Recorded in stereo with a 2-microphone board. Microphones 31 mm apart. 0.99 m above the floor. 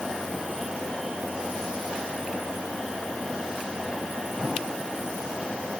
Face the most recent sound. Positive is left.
No sound to turn to.